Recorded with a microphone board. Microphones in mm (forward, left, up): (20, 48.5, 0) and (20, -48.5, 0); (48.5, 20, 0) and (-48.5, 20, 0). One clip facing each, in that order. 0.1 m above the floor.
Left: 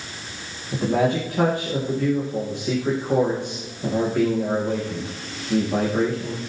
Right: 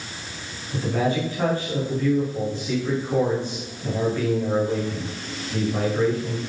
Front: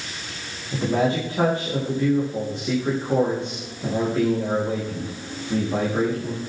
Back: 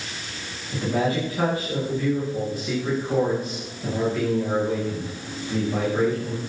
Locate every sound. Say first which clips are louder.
0.7 s a man speaking: left 3 dB, front 2 dB; 65° left, 9 m